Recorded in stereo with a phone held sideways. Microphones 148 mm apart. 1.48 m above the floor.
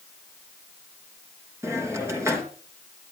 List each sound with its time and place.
1.6 s a hiss: 20° right (ahead or behind), 3.5 m